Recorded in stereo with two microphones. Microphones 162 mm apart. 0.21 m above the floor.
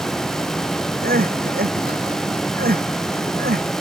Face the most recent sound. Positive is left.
turn(degrees=-80)